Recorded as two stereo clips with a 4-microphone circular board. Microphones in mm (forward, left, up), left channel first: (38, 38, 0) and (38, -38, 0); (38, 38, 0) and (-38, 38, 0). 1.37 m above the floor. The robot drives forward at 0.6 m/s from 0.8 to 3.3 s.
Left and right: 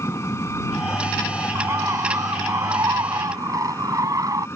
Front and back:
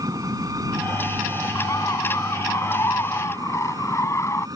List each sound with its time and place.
0.0 s an engine running: 145° left
1.6 s a bird: 45° right; by 4.5 s 50° right